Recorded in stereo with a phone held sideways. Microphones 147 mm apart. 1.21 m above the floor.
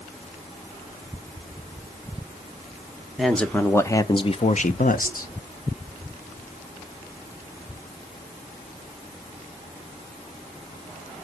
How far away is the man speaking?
About 1.2 m.